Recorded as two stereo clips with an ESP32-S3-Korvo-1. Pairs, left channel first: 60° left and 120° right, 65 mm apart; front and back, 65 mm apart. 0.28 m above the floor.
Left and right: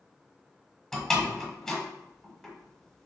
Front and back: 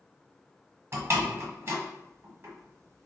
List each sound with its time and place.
0.9 s a door slam: 140° left, 1.1 m